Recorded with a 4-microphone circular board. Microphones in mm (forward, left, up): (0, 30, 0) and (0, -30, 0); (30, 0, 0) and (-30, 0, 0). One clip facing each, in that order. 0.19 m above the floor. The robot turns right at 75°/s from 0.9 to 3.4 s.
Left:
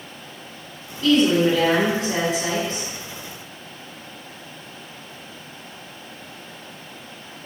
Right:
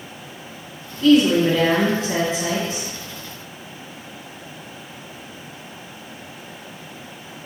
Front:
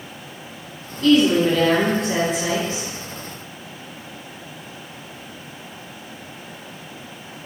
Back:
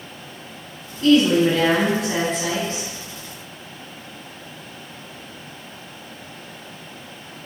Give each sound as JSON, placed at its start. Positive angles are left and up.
{"t": 1.0, "sound": "a woman speaking", "azimuth_deg": -170, "distance_m": 1.4}